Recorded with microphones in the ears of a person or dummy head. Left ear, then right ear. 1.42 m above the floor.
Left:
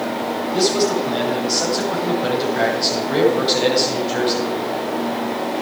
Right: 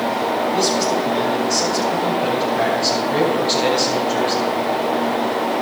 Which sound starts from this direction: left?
A man speaking, at 0.5 s.